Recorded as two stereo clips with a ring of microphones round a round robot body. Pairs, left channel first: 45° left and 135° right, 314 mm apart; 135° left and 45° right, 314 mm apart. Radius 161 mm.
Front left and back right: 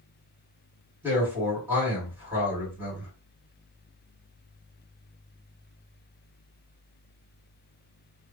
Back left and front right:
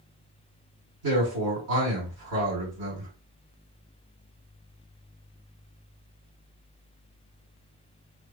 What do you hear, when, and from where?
1.0 s a man speaking: 55° right, 1.9 m